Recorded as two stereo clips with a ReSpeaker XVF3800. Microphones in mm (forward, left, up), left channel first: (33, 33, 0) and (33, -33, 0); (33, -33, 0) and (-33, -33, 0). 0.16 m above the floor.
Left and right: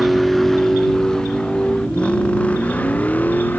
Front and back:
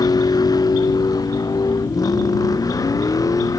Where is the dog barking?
I don't hear a dog barking.